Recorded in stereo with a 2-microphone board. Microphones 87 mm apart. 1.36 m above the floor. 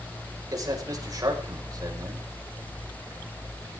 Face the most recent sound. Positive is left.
turn(degrees=-45)  # may be behind; listen again after turning